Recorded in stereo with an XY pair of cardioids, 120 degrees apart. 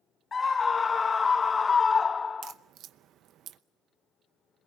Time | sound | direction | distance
0.3 | a scream | 25° left | 0.5 m
2.4 | a crack | 65° right | 0.8 m